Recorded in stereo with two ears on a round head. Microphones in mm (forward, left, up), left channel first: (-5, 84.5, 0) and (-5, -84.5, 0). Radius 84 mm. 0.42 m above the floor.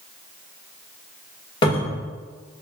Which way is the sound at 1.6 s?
25° left (ahead or behind).